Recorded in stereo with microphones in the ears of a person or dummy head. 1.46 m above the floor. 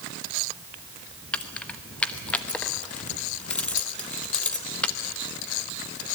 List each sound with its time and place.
1.3 s keys jangling: 5° left (ahead or behind), 1.1 m